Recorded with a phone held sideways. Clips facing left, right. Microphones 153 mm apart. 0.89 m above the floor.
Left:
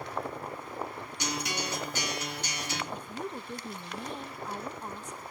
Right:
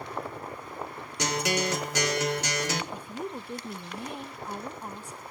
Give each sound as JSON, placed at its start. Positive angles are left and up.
{"t": 1.2, "sound": "a guitar", "side_deg": -80, "distance_m": 2.0}
{"t": 2.9, "sound": "a woman speaking", "side_deg": -10, "distance_m": 1.0}